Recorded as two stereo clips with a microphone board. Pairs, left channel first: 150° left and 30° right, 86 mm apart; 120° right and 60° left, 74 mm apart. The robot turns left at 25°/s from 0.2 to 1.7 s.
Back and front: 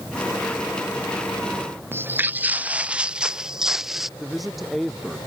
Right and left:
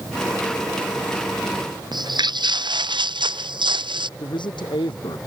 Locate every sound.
1.9 s footsteps: 35° left; by 4.1 s 55° left
4.2 s a man speaking: 120° right